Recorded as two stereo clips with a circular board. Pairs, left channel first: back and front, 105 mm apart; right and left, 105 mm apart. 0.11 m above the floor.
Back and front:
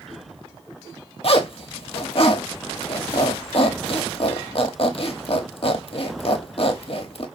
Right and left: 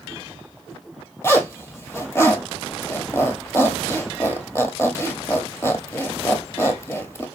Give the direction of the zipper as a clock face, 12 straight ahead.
5 o'clock.